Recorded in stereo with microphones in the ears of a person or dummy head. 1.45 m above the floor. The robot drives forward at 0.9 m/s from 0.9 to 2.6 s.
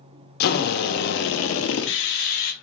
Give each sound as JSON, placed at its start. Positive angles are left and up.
{"t": 0.4, "sound": "a drill", "side_deg": 55, "distance_m": 1.2}